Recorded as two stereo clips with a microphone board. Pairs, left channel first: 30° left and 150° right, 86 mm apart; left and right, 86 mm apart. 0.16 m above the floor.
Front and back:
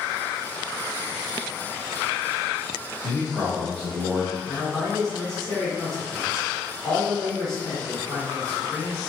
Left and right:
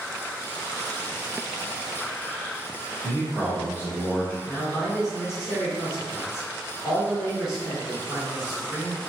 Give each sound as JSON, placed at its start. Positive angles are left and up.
{"t": 3.0, "sound": "a man speaking", "azimuth_deg": 100, "distance_m": 1.1}
{"t": 4.5, "sound": "a man speaking", "azimuth_deg": 105, "distance_m": 1.7}